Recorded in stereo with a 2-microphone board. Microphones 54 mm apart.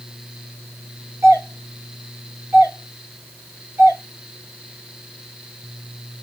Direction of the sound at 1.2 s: 45° right (ahead or behind).